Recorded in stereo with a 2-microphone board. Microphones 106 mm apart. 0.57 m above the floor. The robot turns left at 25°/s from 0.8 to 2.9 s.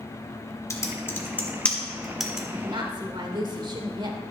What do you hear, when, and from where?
0.7 s typing on a keyboard: 30° left (ahead or behind), 1.4 m; by 2.4 s 5° right (ahead or behind), 1.4 m
2.5 s a woman speaking: 50° right (ahead or behind), 1.4 m; by 4.2 s 45° right (ahead or behind), 1.4 m